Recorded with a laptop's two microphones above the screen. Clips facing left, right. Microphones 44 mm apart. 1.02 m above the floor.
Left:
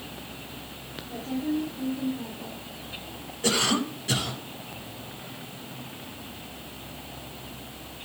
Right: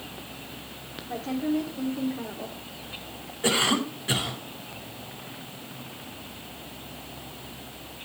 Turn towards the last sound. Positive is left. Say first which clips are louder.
# right 1 dB
turn(degrees=-20)  # may be behind; listen again after turning